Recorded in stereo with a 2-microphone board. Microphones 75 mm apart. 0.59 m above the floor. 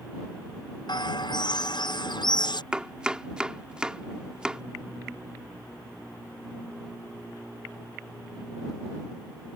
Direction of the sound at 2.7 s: 15° right (ahead or behind).